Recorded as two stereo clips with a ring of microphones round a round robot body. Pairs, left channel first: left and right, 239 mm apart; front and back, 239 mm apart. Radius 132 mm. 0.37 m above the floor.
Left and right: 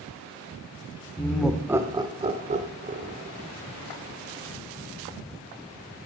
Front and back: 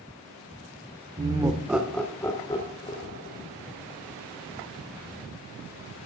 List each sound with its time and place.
1.2 s laughter: 165° left, 0.9 m; by 3.4 s 50° right, 1.3 m